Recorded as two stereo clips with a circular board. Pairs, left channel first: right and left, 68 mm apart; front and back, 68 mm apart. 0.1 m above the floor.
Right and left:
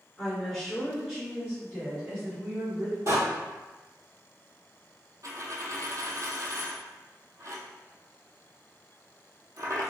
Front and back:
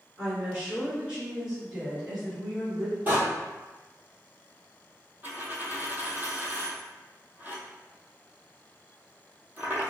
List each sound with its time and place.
0.2 s a woman speaking: 155° right, 1.8 m; by 3.0 s 95° left, 1.9 m
3.1 s a door slam: 120° left, 1.9 m
5.2 s a dropped coin: 120° left, 0.6 m